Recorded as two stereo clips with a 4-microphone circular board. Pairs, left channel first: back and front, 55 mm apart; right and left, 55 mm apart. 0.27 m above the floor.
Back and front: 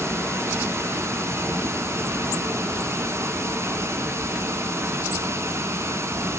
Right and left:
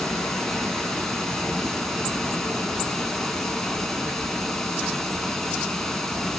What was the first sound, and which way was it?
Running water, 10° right.